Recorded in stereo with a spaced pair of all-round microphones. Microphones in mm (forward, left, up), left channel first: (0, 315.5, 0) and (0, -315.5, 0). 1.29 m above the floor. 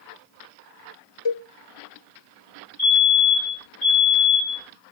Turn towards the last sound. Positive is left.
turn(degrees=-10)  # may be behind; listen again after turning